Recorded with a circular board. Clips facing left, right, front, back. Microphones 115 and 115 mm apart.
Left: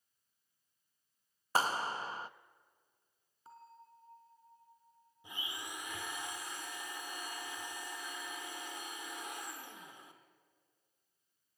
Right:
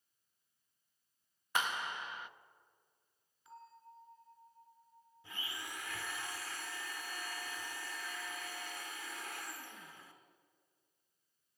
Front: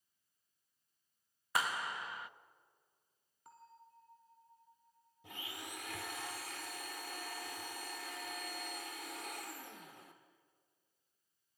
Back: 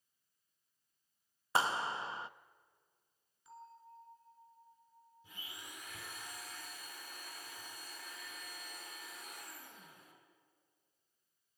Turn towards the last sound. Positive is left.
turn(degrees=20)